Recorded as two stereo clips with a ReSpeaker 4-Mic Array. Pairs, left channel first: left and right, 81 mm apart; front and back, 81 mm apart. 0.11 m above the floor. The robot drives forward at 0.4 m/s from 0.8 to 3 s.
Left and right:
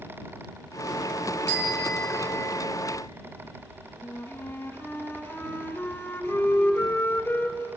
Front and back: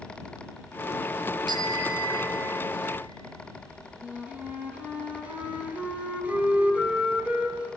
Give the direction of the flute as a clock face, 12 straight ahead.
8 o'clock.